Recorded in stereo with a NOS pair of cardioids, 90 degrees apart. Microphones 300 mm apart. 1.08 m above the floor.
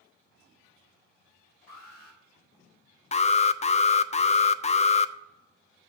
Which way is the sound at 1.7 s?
60° left.